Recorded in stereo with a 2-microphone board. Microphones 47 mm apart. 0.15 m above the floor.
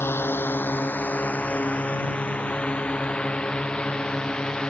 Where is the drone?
60° left (ahead or behind); by 4.7 s 20° left (ahead or behind).